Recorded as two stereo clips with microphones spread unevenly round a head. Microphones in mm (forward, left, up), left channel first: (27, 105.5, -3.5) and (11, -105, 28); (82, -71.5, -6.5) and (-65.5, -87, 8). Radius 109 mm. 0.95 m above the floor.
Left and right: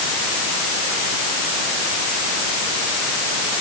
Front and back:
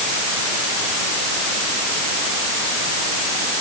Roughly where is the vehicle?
I don't hear a vehicle.